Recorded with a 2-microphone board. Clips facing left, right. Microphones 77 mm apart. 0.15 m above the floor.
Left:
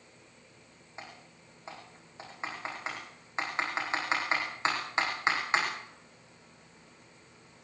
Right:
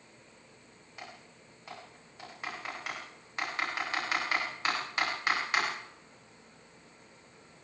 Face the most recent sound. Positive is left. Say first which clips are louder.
# left 1 dB
turn(degrees=20)  # may be behind; listen again after turning